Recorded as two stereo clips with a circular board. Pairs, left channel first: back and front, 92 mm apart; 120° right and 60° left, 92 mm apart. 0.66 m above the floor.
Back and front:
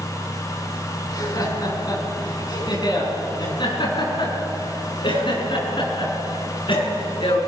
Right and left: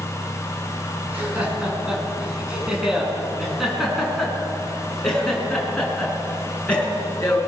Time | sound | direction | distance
1.1 | laughter | 135° left | 7 m